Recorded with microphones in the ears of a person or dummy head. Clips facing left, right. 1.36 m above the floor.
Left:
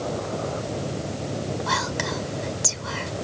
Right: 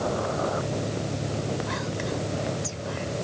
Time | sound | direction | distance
1.7 | whispering | 80° left | ?